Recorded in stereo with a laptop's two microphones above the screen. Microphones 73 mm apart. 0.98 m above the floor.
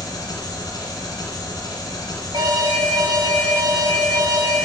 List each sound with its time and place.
0.0 s an engine running: 75° left (ahead or behind), 2.5 m
2.3 s an alarm: 65° right (ahead or behind), 1.6 m